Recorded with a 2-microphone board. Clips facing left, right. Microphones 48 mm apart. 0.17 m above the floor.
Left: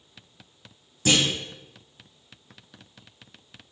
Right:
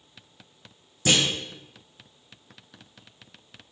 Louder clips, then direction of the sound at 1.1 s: Left 1 dB; 15° right (ahead or behind).